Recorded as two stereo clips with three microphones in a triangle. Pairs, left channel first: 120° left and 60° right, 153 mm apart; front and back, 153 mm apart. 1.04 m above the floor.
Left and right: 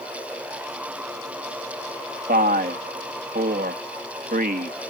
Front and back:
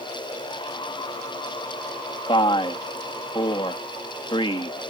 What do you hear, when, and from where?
2.3 s a man speaking: 55° right